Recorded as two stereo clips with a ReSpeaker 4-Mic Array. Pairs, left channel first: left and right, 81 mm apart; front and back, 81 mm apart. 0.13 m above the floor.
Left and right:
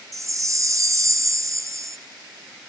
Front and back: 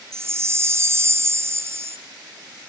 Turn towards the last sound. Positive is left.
turn(degrees=-130)